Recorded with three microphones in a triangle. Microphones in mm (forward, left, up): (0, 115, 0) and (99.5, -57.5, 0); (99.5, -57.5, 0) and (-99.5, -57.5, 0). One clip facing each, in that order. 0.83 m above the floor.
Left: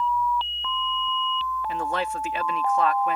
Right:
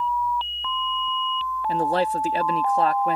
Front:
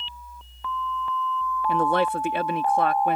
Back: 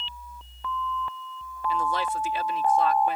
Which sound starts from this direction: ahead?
A man speaking, at 1.7 s.